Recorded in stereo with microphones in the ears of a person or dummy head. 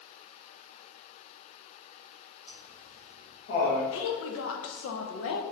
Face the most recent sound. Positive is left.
turn(degrees=75)  # may be behind; listen again after turning